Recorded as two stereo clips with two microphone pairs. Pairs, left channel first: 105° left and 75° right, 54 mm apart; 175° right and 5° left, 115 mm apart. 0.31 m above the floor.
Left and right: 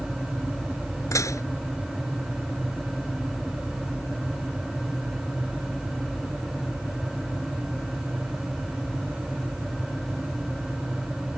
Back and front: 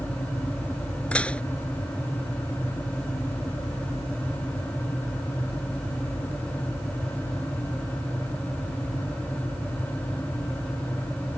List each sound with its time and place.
1.1 s dishes clattering: 105° left